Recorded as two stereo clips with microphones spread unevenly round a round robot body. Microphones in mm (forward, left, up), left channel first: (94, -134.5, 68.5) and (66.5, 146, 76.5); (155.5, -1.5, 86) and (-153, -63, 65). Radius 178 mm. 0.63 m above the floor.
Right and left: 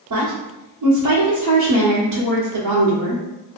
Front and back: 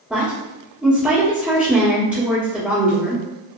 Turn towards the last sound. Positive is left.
turn(degrees=110)